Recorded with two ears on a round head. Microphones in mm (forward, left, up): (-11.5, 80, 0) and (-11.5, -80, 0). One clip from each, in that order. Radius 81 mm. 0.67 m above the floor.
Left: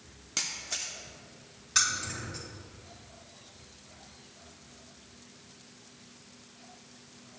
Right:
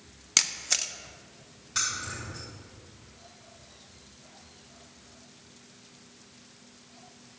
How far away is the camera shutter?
About 0.6 m.